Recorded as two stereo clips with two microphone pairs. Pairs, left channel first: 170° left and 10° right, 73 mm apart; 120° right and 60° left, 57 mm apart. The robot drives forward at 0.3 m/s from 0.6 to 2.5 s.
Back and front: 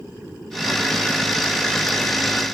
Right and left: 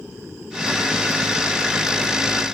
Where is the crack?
No crack in this recording.